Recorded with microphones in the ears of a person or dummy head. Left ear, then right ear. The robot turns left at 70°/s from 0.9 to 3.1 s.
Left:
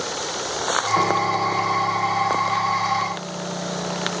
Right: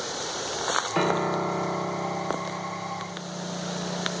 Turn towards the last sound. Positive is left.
turn(degrees=170)